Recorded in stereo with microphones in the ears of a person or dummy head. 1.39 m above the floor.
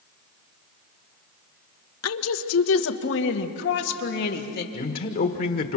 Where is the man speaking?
45° left (ahead or behind), 1.3 m.